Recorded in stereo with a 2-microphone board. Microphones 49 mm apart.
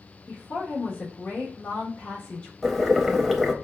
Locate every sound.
0.3 s a woman speaking: 25° left (ahead or behind), 1.0 m
2.6 s boiling: 5° right (ahead or behind), 0.5 m